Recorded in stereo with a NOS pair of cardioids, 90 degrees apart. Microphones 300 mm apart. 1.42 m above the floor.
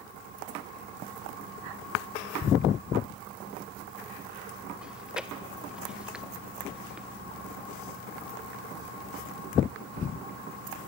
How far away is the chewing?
About 1.1 m.